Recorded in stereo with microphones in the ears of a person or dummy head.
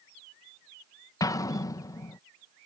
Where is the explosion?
20° left (ahead or behind).